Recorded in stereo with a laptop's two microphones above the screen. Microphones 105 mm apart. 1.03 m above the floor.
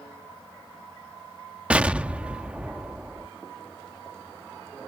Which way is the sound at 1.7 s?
10° right (ahead or behind).